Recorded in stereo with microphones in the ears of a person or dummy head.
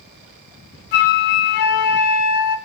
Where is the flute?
55° left (ahead or behind), 0.5 m.